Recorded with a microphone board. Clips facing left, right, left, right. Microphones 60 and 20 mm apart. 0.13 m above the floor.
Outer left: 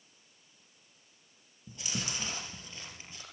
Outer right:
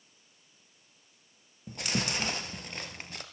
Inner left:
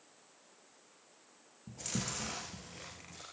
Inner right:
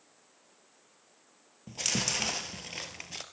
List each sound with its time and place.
1.7 s chewing: 60° right (ahead or behind), 3 m